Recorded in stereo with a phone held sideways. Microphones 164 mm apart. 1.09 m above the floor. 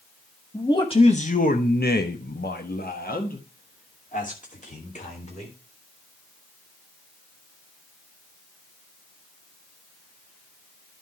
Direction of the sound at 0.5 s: 20° left (ahead or behind).